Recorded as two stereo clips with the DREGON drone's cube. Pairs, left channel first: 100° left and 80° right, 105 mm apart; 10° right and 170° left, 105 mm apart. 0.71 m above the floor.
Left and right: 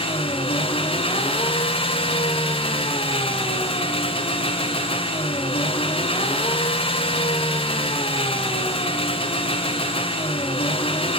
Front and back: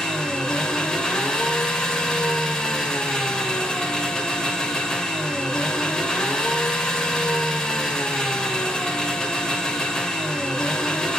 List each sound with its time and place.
0.0 s an engine running: 70° left, 2.5 m